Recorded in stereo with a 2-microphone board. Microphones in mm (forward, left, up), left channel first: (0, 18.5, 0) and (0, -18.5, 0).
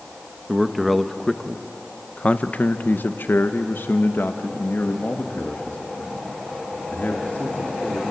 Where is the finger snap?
I don't hear a finger snap.